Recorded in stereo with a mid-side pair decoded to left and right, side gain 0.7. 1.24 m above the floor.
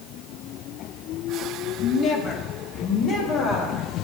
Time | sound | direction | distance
1.8 | a woman speaking | 45° left | 0.7 m